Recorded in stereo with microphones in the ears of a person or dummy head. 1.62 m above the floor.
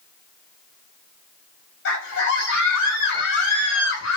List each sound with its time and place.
1.9 s a scream: 60° left (ahead or behind), 7 m; by 4.2 s 50° left (ahead or behind), 7 m